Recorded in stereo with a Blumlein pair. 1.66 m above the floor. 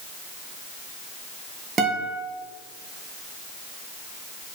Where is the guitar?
20° right, 1.8 m.